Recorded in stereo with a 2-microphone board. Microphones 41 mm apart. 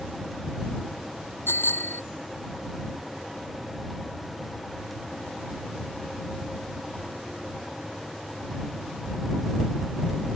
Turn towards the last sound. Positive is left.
turn(degrees=75)  # may be behind; listen again after turning